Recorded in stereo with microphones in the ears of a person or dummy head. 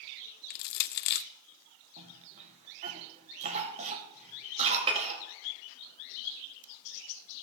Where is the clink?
30° right (ahead or behind), 2 m.